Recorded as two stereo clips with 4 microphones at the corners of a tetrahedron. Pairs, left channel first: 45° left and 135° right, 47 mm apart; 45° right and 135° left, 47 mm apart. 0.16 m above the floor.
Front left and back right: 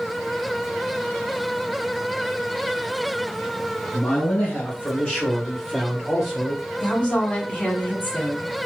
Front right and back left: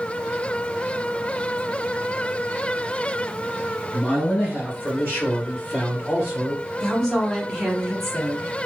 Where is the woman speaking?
10° left, 1.8 m.